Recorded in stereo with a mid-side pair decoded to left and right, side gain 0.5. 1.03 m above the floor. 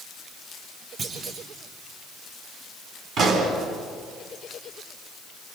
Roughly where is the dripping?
I don't hear dripping.